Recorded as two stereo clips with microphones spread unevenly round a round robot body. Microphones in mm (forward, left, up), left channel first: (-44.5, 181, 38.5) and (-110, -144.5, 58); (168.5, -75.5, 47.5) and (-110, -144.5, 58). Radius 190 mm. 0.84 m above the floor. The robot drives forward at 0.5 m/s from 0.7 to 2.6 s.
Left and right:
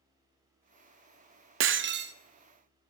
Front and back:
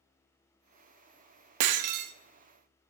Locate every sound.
1.6 s breaking glass: 155° right, 0.6 m; by 2.1 s 160° right, 0.8 m